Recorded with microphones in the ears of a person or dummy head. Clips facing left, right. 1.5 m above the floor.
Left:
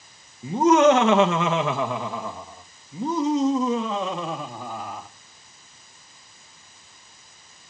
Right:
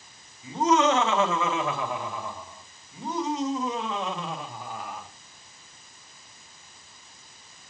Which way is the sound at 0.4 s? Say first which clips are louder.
Left 6 dB; 35° left (ahead or behind).